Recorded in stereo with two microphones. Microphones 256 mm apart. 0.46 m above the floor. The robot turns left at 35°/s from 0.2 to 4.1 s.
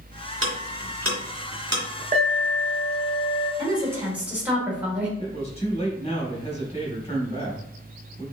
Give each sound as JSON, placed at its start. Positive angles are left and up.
{"t": 0.4, "sound": "ticking", "side_deg": -80, "distance_m": 2.0}
{"t": 2.1, "sound": "an alarm", "azimuth_deg": -135, "distance_m": 1.4}
{"t": 3.6, "sound": "a woman speaking", "side_deg": -20, "distance_m": 1.4}
{"t": 5.2, "sound": "a man speaking", "side_deg": 25, "distance_m": 2.0}